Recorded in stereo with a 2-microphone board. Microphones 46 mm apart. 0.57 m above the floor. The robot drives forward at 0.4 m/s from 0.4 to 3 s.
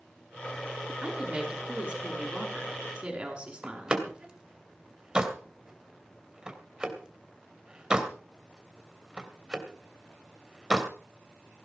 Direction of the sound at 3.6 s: 15° right (ahead or behind).